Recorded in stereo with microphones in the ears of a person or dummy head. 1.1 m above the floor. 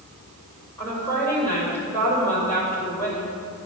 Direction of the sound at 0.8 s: 10° left (ahead or behind).